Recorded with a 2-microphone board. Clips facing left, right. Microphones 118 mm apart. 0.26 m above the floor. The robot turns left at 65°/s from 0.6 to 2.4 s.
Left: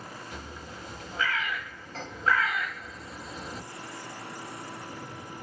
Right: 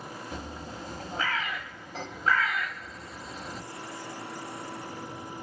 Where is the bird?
35° right (ahead or behind), 0.7 m; by 3.6 s 5° left (ahead or behind), 0.7 m.